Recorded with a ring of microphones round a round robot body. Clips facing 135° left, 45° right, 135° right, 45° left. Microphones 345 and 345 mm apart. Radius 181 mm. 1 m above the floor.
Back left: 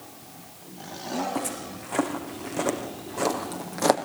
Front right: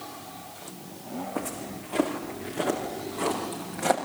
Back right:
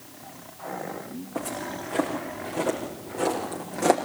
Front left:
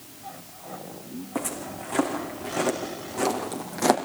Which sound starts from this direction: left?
Footsteps, at 1.4 s.